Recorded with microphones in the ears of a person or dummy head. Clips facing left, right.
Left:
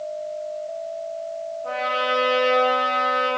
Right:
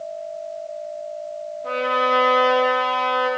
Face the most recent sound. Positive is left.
turn(degrees=-15)  # may be behind; listen again after turning